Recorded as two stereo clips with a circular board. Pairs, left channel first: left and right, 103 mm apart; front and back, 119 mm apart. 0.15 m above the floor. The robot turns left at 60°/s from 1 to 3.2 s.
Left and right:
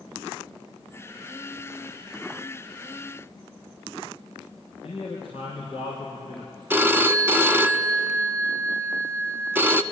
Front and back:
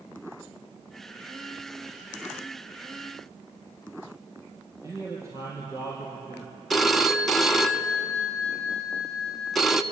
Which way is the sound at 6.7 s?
85° right.